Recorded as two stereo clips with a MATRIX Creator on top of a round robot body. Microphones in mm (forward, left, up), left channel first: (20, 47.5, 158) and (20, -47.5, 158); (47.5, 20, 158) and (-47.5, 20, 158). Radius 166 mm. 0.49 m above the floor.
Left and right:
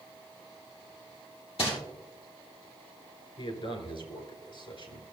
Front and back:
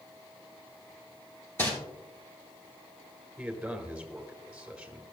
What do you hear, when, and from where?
1.6 s crumpling: 65° left, 2.5 m
3.4 s a man speaking: 100° left, 2.5 m